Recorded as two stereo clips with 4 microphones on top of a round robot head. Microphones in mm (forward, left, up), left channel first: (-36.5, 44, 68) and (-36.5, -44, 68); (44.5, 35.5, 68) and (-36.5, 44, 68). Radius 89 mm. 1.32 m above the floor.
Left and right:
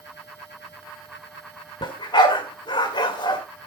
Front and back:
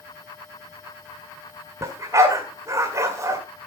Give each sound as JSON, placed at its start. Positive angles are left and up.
{"t": 1.8, "sound": "a dog barking", "azimuth_deg": 125, "distance_m": 1.8}